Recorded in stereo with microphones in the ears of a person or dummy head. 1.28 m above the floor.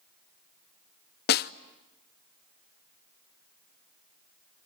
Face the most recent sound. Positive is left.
turn(degrees=50)  # may be behind; listen again after turning